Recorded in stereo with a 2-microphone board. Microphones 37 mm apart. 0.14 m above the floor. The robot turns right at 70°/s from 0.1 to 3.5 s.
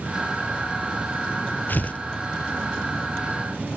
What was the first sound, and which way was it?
Tearing paper, 50° left (ahead or behind).